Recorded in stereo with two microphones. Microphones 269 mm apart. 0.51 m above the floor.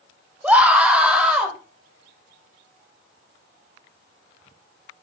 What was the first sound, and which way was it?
A scream, 5° right (ahead or behind).